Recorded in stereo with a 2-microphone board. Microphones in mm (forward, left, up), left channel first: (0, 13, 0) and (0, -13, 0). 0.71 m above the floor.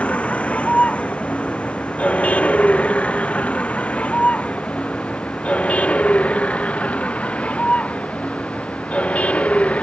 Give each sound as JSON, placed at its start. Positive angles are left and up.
{"t": 0.0, "sound": "a vehicle", "side_deg": 65}